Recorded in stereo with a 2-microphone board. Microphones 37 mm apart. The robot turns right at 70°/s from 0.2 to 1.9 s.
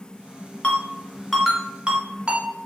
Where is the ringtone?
40° left (ahead or behind), 0.9 m; by 2.5 s 30° right (ahead or behind), 0.9 m.